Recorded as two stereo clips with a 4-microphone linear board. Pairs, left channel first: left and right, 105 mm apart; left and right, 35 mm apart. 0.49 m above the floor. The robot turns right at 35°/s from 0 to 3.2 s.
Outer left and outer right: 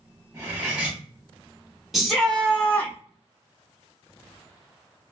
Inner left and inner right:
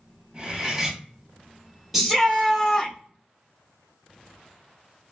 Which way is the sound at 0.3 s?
30° right (ahead or behind).